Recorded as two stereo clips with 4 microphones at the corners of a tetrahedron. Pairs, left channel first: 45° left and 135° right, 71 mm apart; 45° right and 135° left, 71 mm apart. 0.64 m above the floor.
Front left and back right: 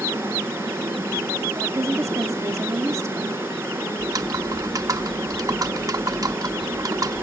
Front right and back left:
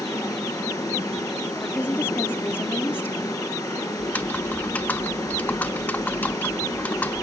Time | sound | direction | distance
0.0 | running water | 75° right | 4.5 m
1.6 | a woman speaking | 100° right | 1.0 m
4.0 | typing on a keyboard | 110° right | 0.7 m